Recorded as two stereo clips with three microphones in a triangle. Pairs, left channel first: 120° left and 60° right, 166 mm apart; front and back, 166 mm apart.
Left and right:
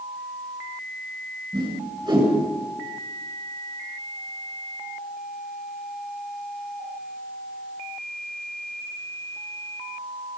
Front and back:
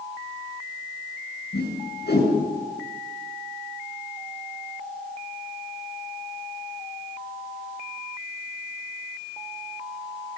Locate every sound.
1.5 s a whoosh: straight ahead, 8 m